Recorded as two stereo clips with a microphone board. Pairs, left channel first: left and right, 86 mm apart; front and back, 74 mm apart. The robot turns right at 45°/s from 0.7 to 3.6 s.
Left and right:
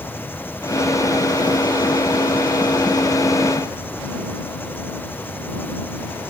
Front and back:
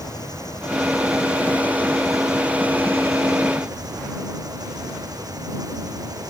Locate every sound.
0.0 s an engine running: 25° left; by 6.3 s 155° left